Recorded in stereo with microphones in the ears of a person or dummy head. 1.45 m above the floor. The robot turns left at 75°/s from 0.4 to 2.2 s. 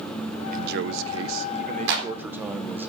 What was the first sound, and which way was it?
A man speaking, 45° right.